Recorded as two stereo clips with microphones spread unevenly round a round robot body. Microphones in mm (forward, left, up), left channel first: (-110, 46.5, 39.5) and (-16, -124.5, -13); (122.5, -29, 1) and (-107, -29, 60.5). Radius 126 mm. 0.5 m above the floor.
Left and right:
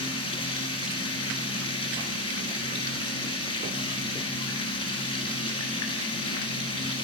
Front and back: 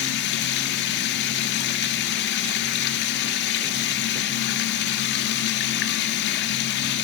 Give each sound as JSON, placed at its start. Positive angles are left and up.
{"t": 0.0, "sound": "running water", "azimuth_deg": 50, "distance_m": 1.4}